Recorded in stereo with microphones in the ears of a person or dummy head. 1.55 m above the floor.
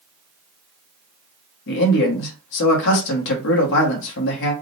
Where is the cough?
I don't hear a cough.